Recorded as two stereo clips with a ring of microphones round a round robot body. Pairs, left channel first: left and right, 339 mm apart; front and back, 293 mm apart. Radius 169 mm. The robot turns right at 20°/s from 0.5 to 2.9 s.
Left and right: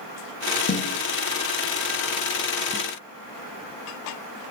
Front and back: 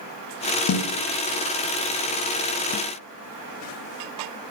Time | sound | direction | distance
0.7 | a snare drum | 30° left | 0.6 m